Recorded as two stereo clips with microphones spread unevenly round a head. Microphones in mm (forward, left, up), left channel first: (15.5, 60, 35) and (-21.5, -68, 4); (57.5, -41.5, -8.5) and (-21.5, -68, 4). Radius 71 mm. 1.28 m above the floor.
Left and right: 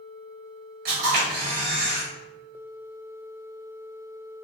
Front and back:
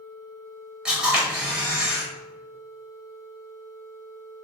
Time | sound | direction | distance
0.8 | a camera shutter | 85° right | 1.5 m